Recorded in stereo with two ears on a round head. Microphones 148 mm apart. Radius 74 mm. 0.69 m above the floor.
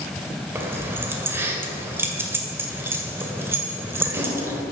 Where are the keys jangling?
15° right (ahead or behind), 1.9 m.